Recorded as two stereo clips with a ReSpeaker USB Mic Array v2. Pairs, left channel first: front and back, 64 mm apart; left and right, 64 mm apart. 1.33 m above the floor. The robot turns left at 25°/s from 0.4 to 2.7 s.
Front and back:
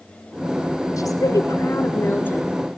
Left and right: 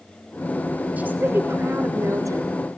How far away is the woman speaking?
About 4 m.